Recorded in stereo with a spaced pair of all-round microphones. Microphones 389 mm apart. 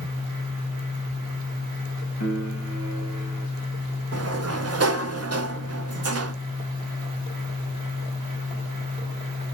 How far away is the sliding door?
About 0.6 m.